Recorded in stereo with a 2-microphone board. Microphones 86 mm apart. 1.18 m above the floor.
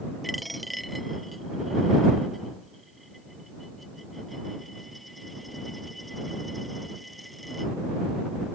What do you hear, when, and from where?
0.2 s a dropped coin: centre (ahead or behind)